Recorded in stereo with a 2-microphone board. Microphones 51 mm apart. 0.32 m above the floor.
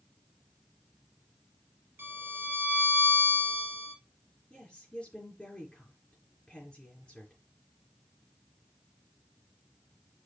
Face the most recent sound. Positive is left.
turn(degrees=20)  # may be behind; listen again after turning